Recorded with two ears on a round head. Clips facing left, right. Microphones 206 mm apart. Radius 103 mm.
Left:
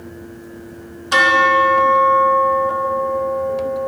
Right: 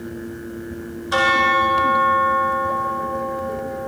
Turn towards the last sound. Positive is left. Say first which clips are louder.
# left 4 dB
turn(degrees=35)  # may be behind; listen again after turning